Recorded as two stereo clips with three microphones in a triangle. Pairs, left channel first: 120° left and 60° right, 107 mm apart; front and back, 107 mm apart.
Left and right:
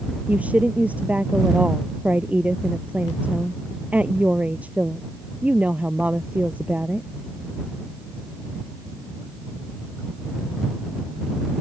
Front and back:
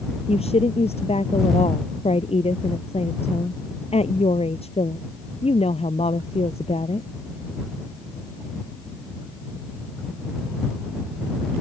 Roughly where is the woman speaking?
Ahead.